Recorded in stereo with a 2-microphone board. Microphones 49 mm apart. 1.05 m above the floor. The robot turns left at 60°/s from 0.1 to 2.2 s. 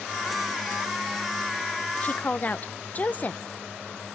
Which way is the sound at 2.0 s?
30° left (ahead or behind).